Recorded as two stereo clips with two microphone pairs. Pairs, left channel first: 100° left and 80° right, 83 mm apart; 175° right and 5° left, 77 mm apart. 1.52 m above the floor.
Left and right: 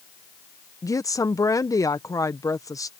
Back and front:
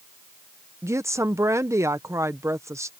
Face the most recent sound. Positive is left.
turn(degrees=55)